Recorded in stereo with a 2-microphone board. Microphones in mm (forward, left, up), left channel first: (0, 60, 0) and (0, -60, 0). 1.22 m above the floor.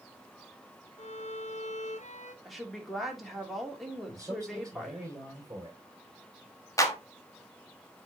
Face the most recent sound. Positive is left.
turn(degrees=25)  # may be behind; listen again after turning